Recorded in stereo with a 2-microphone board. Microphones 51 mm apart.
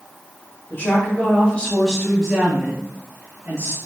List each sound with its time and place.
0.7 s a woman speaking: 35° left (ahead or behind), 1.2 m; by 3.8 s 40° right (ahead or behind), 1.1 m